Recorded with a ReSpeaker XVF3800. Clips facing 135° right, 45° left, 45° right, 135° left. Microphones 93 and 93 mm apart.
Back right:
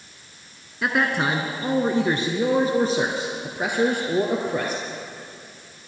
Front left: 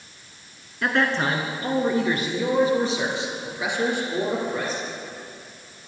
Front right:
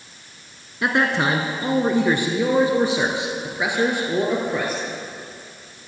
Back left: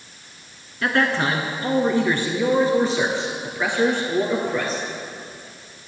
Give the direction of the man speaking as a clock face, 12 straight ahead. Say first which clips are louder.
Even, front right 1 dB; 2 o'clock.